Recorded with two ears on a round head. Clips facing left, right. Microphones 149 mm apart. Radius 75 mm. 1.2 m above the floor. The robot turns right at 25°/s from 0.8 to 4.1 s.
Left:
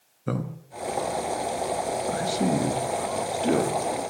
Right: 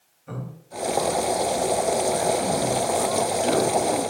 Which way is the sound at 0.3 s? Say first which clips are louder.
Left 6 dB; 80° left.